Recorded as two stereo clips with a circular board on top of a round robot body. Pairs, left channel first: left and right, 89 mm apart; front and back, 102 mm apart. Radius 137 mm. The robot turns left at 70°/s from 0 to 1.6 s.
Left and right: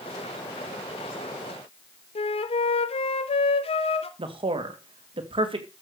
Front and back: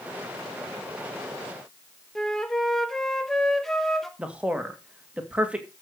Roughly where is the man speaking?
Right.